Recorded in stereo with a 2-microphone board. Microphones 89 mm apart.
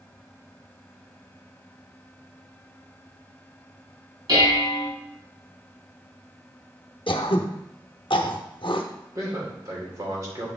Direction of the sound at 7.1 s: 70° left (ahead or behind).